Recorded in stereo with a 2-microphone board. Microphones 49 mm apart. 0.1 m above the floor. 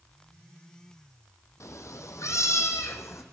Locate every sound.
1.6 s a cat meowing: 70° left (ahead or behind), 1.3 m; by 3.2 s 65° left (ahead or behind), 1.8 m